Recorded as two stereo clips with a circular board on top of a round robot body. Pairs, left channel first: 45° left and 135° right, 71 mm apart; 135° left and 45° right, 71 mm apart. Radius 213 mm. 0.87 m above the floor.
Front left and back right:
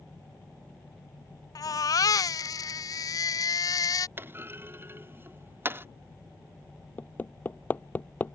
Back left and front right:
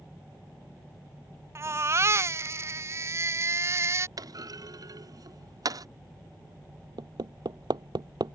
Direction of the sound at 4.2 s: 75° right.